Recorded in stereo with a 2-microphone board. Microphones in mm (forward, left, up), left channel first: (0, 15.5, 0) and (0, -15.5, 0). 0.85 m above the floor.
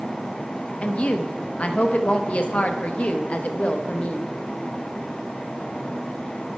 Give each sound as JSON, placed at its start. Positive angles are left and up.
{"t": 0.8, "sound": "a woman speaking", "side_deg": 45, "distance_m": 0.7}